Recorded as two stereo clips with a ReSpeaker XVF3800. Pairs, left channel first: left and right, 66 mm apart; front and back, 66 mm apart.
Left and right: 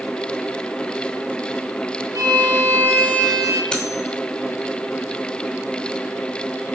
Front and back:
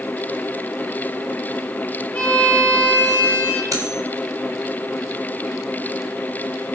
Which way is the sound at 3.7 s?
165° left.